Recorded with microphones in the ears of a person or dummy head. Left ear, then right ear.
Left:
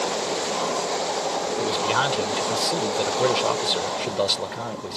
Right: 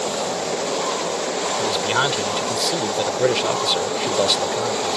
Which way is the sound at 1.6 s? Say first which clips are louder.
Right 2 dB; centre (ahead or behind).